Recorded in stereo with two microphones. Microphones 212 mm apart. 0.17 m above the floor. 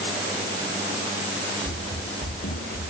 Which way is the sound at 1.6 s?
80° left.